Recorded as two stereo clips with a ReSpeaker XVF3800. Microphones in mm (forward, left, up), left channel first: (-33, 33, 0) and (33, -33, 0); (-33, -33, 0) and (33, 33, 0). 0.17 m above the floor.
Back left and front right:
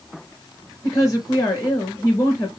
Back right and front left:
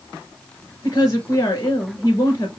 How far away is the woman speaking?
About 2.5 m.